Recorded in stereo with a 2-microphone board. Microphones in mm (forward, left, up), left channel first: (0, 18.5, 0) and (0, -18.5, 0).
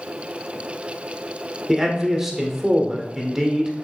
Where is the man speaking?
10° right (ahead or behind), 1.3 m.